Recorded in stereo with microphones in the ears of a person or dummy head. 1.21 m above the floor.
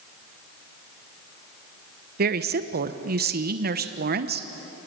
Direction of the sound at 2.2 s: 45° right (ahead or behind).